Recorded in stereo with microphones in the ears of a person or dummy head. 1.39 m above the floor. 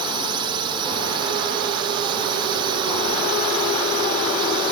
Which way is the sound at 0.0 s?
25° right (ahead or behind).